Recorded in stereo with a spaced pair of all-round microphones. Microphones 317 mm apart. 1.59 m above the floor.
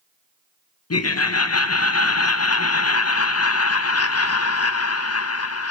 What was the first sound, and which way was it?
Laughter, 50° left (ahead or behind).